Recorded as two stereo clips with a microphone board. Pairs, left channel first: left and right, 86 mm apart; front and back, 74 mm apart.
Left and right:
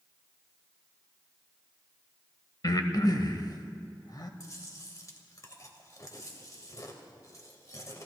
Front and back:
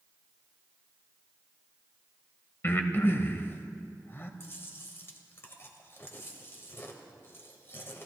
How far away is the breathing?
About 1.0 m.